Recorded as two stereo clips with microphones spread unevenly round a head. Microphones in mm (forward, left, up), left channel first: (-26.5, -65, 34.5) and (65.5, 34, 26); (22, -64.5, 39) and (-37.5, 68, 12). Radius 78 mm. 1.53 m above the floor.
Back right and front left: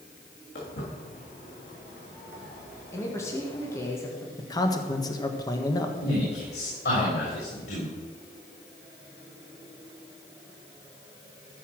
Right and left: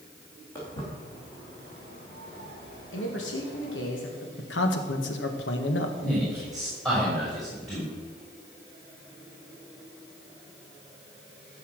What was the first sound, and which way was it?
Footsteps, 135° right.